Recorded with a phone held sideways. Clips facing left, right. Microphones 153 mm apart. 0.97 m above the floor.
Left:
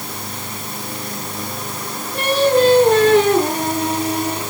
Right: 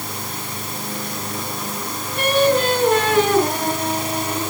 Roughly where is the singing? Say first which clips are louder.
Left 2 dB; left.